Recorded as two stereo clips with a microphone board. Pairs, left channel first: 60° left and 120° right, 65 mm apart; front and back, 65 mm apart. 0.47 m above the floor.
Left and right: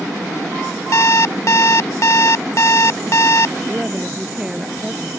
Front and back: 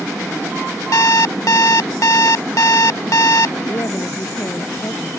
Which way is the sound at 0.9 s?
25° left.